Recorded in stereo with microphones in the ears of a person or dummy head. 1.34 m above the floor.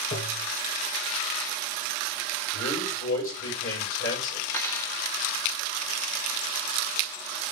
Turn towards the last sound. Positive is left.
turn(degrees=10)  # may be behind; listen again after turning